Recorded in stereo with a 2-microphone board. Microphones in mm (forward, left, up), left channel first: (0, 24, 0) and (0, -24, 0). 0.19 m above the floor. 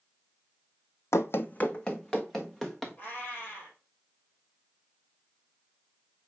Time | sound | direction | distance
1.1 | running footsteps | 80° left | 0.5 m
3.0 | a cat meowing | 30° left (ahead or behind) | 3.5 m